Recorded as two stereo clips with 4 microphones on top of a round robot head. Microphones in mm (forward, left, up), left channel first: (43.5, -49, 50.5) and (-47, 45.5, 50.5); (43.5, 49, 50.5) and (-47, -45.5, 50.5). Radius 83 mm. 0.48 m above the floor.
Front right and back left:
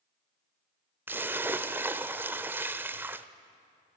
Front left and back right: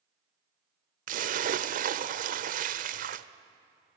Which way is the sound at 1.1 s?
150° right.